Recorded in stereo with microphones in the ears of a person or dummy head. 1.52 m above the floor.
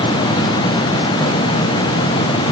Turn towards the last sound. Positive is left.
No sound to turn to.